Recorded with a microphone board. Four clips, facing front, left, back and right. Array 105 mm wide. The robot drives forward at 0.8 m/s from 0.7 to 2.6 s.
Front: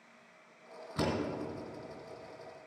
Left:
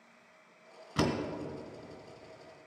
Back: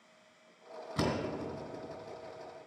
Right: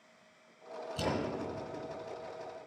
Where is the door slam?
90° left, 1.9 m; by 1.2 s 100° left, 1.9 m.